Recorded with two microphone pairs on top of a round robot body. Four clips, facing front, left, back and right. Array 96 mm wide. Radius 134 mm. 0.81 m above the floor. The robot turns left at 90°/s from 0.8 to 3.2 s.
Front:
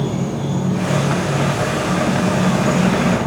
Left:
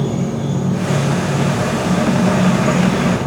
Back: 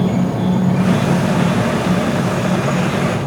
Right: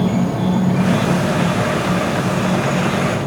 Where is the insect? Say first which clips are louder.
Right 2 dB, back 5 dB; 140° right, 5.5 m; by 3.3 s 5° left, 5.5 m.